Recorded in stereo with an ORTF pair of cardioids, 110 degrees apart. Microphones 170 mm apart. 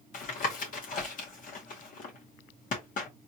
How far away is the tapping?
About 2 m.